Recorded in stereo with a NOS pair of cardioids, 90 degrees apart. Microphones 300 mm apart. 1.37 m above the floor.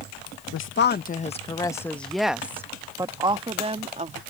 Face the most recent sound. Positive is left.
turn(degrees=-25)